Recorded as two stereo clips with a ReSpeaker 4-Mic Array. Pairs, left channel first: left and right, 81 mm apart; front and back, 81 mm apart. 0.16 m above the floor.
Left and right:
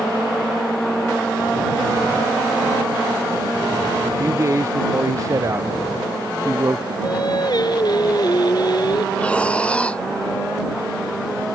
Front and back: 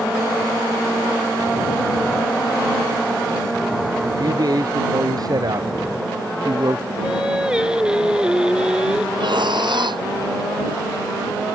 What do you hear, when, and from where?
4.0 s a man speaking: 140° right
7.0 s singing: 100° left
9.2 s breathing: 165° left